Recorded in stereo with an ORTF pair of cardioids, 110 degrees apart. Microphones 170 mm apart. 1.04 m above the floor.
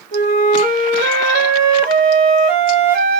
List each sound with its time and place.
0.1 s a flute: 55° right, 0.9 m